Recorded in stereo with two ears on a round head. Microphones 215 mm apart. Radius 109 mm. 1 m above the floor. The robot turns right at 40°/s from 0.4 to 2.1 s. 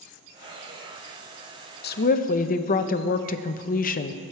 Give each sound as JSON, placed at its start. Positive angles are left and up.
{"t": 1.8, "sound": "a woman speaking", "side_deg": 45, "distance_m": 0.6}